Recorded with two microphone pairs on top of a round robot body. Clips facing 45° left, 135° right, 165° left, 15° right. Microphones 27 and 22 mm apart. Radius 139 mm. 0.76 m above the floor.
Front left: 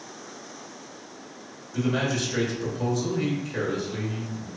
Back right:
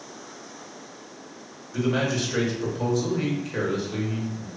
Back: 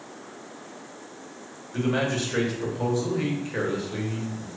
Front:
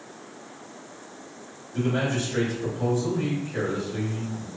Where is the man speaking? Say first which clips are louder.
Back right 1 dB, back 1 dB; 160° left, 1.1 m.